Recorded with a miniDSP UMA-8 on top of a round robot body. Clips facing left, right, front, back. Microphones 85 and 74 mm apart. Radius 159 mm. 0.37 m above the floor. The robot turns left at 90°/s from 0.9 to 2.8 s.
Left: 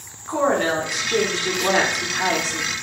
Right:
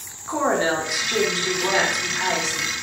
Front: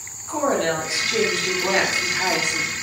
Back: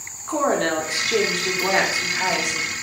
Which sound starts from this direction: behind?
A woman speaking, at 0.3 s.